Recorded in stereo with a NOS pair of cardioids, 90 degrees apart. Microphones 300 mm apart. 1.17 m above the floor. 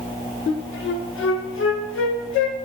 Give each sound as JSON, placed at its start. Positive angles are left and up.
{"t": 0.5, "sound": "a flute", "azimuth_deg": 45, "distance_m": 0.5}